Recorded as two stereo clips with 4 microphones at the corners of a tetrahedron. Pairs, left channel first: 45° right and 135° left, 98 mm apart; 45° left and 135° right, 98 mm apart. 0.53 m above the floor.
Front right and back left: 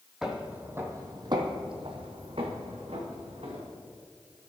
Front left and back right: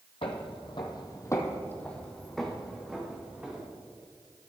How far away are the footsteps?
About 1.2 m.